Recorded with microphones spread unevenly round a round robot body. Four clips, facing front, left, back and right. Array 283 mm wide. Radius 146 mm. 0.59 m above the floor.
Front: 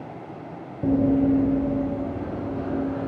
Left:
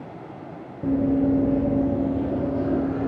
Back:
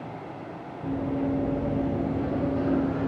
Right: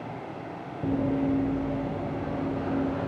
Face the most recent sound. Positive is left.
turn(degrees=125)